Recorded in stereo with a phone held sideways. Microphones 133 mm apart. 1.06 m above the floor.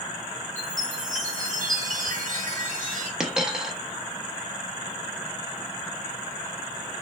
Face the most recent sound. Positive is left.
turn(degrees=-5)  # may be behind; listen again after turning